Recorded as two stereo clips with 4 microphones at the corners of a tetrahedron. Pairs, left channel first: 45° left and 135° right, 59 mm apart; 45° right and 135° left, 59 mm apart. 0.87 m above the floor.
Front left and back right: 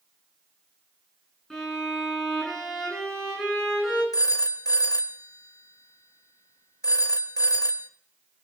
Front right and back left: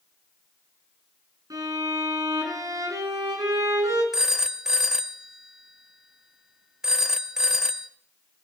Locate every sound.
1.5 s a violin: 125° left, 9 m
4.1 s a phone ringing: 55° left, 0.8 m